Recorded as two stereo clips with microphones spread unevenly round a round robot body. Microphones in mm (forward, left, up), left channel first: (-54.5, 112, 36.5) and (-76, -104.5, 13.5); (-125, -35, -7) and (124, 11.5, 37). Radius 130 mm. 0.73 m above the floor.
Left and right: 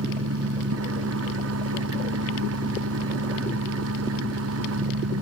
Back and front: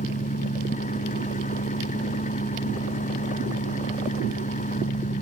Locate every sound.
0.0 s an engine running: 105° right